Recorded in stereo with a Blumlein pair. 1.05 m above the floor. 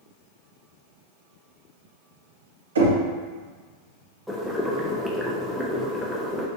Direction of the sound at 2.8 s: 65° right.